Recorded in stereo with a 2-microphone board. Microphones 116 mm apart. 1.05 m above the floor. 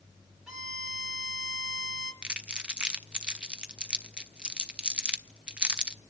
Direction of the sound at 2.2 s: 10° right (ahead or behind).